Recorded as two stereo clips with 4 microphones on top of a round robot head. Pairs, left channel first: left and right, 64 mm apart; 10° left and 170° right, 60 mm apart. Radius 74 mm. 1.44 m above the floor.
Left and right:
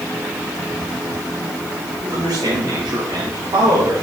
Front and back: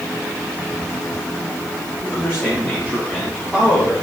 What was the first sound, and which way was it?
A man speaking, 60° right.